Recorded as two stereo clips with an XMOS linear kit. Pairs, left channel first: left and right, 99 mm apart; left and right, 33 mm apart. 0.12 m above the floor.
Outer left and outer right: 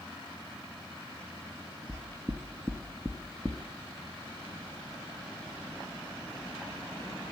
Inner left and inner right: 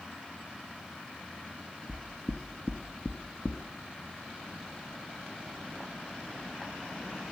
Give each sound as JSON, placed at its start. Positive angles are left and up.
{"t": 1.9, "sound": "knocking", "side_deg": -25, "distance_m": 1.2}